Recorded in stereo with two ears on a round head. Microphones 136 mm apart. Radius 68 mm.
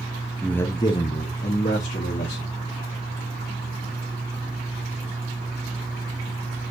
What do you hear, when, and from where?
0.4 s a man speaking: 5° left (ahead or behind), 0.5 m; by 2.5 s 55° left (ahead or behind), 1.6 m